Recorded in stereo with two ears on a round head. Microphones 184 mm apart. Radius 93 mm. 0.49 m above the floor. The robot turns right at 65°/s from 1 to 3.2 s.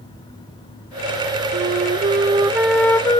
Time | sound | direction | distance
1.5 | a flute | 80° right | ?